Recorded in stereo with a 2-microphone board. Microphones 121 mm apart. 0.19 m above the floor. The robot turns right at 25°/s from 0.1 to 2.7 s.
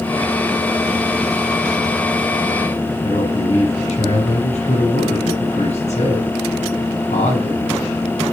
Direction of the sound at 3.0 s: 70° left (ahead or behind).